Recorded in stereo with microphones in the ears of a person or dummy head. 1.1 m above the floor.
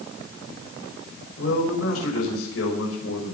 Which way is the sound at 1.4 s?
80° left.